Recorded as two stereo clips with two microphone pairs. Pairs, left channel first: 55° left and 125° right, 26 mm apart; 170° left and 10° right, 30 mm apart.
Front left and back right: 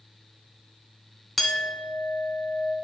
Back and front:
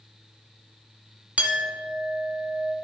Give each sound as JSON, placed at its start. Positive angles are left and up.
{"t": 1.4, "sound": "a clink", "azimuth_deg": -25, "distance_m": 0.8}